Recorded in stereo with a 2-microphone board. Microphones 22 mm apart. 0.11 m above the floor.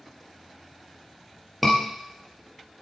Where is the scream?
Centre (ahead or behind), 2.5 m.